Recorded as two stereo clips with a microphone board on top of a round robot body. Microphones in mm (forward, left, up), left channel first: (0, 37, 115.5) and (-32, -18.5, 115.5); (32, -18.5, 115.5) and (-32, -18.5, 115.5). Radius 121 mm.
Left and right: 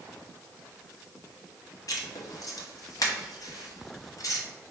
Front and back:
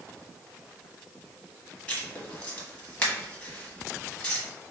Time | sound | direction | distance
1.9 | writing | 70° left | 1.4 m